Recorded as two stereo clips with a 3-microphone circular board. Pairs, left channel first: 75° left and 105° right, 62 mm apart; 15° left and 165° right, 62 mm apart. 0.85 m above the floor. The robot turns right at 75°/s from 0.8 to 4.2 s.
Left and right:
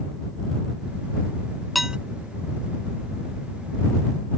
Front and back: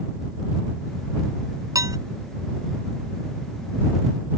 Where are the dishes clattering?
165° left; by 2.0 s straight behind.